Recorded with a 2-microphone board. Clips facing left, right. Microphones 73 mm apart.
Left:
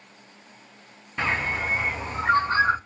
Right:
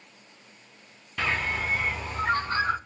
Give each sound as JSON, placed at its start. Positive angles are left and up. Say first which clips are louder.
{"t": 1.2, "sound": "a bird", "louder": "left 2 dB", "side_deg": 25, "distance_m": 0.6}